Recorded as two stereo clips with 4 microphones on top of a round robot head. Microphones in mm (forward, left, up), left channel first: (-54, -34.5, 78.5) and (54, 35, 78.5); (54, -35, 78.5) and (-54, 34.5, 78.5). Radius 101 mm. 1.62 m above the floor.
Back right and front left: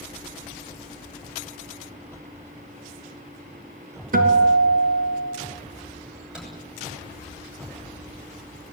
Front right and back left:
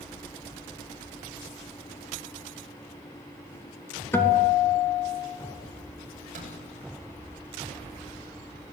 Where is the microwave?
115° left, 10 m.